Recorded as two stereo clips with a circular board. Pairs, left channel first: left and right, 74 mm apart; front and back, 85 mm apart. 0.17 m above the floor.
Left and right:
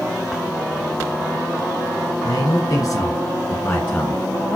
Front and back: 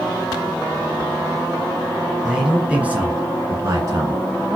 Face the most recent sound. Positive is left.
turn(degrees=160)